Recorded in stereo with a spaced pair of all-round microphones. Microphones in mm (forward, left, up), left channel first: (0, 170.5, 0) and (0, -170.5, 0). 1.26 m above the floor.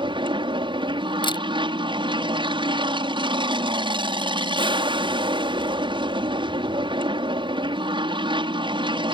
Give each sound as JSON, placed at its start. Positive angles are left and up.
{"t": 0.0, "sound": "an aircraft", "side_deg": -15}
{"t": 1.2, "sound": "a camera shutter", "side_deg": 15}